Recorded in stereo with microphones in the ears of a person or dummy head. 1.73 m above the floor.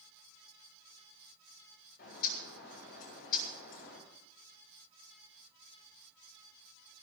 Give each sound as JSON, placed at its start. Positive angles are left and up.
{"t": 2.0, "sound": "a bird", "side_deg": 50, "distance_m": 9.5}